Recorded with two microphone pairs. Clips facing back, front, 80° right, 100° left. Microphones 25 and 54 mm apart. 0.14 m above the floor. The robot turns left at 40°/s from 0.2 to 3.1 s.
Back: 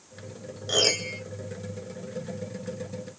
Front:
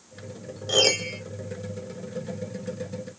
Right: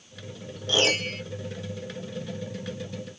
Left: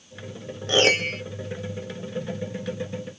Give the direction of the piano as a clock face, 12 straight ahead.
9 o'clock.